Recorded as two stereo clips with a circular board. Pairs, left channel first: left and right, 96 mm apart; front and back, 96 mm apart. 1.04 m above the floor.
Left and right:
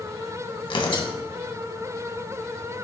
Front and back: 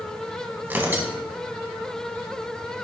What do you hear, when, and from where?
0.6 s tearing paper: 115° left, 1.9 m